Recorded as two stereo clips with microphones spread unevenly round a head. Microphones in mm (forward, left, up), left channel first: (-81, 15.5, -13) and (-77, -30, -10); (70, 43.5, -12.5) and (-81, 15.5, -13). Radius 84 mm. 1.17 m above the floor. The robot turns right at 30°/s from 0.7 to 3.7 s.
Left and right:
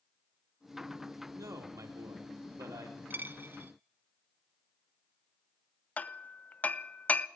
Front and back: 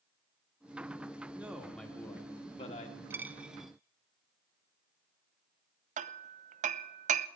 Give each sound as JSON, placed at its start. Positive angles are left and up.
{"t": 1.4, "sound": "a man speaking", "azimuth_deg": -90, "distance_m": 2.0}
{"t": 3.1, "sound": "a dropped coin", "azimuth_deg": -95, "distance_m": 0.6}
{"t": 6.0, "sound": "hammering", "azimuth_deg": 150, "distance_m": 0.6}